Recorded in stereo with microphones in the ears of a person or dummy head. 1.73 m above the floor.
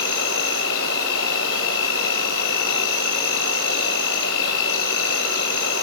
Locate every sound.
0.0 s an insect: 70° left (ahead or behind), 1.4 m